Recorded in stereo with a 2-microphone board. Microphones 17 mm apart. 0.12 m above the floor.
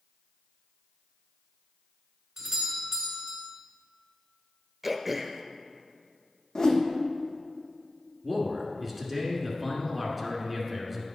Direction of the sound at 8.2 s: Centre (ahead or behind).